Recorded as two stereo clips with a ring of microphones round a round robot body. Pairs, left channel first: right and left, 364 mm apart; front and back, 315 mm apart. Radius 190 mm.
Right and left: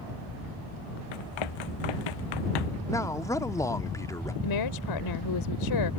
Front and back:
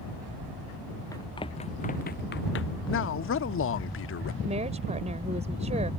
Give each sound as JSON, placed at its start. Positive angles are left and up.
{"t": 1.1, "sound": "running footsteps", "azimuth_deg": -80}
{"t": 2.9, "sound": "a man speaking", "azimuth_deg": -15}
{"t": 4.4, "sound": "a woman speaking", "azimuth_deg": -110}